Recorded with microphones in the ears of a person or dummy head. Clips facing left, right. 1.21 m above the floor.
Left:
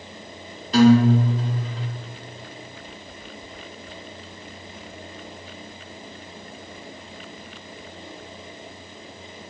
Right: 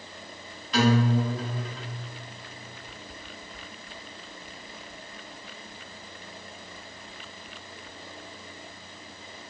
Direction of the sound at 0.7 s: 30° left (ahead or behind).